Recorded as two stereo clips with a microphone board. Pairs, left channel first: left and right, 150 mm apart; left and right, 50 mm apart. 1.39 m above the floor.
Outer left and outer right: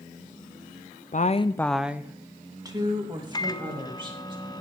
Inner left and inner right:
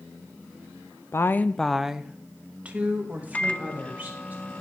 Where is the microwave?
25° left (ahead or behind), 0.6 m.